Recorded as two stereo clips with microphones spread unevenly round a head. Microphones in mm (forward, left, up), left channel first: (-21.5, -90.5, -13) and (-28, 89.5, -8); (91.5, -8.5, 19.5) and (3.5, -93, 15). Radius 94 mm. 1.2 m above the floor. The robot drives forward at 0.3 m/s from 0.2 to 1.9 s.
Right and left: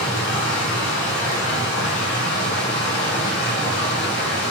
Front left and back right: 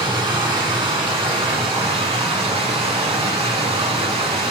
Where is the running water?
85° right, 2.5 m; by 4.5 s 100° right, 2.5 m.